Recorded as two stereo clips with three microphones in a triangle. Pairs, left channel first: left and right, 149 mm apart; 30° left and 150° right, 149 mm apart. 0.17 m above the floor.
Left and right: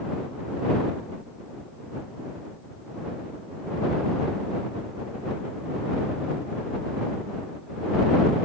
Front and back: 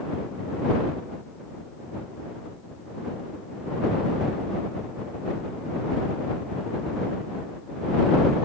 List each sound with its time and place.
Only background noise.